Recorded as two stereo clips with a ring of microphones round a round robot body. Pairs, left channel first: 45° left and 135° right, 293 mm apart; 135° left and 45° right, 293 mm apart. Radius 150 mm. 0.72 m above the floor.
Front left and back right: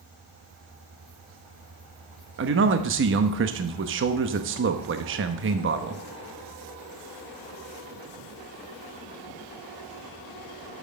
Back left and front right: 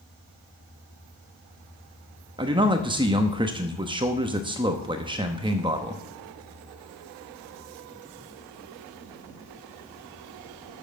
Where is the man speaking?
110° right, 0.9 m.